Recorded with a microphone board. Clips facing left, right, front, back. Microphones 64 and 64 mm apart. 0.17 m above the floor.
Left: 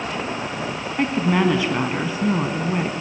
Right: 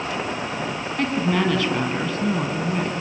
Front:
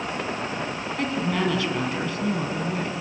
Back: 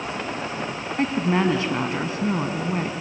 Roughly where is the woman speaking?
Behind left.